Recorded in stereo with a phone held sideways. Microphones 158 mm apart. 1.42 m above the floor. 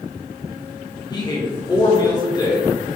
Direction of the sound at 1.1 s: 25° left (ahead or behind).